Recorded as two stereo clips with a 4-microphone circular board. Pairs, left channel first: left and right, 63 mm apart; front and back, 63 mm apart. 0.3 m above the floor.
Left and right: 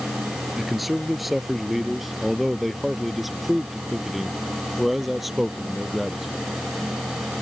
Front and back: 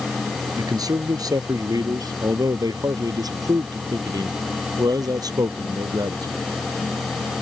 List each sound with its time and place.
0.6 s a man speaking: 175° right